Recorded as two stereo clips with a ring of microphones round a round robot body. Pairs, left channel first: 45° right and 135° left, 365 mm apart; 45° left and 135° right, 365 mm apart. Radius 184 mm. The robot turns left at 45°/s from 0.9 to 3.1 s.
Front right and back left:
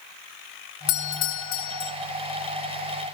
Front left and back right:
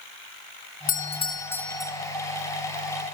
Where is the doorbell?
5° right, 1.4 m; by 1.9 s 50° right, 1.4 m.